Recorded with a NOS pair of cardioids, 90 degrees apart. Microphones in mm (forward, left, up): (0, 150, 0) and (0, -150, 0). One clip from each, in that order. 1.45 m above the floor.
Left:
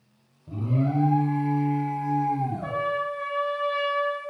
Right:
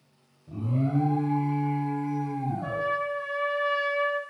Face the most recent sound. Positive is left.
turn(degrees=0)